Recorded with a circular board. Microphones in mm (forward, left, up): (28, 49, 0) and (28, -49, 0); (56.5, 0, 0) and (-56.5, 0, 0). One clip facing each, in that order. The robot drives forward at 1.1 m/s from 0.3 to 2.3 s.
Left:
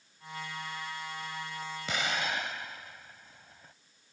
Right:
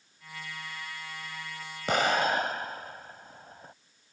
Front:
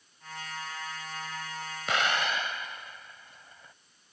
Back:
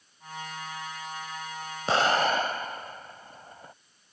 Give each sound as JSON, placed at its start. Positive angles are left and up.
{"t": 1.9, "sound": "an explosion", "azimuth_deg": -125}